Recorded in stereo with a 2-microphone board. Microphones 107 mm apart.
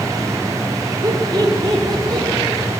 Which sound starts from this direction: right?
Laughter, at 1.0 s.